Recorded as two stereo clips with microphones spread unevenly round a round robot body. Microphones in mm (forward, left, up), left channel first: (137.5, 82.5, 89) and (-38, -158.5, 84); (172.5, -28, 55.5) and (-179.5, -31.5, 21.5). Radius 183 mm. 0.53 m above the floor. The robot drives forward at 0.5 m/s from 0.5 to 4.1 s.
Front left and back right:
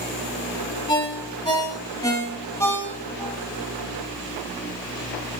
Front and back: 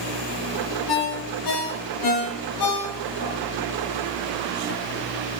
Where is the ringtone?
20° right, 3 m; by 3.4 s 35° right, 1.8 m.